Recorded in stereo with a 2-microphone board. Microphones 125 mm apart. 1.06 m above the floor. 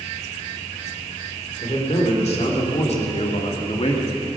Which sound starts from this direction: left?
A man speaking, at 1.6 s.